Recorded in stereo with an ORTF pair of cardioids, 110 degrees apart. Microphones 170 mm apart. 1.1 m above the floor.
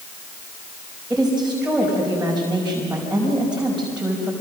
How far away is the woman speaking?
About 5 m.